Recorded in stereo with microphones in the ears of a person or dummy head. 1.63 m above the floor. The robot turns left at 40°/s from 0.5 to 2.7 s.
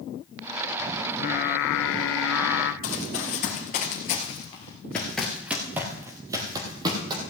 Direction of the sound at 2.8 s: 40° left (ahead or behind).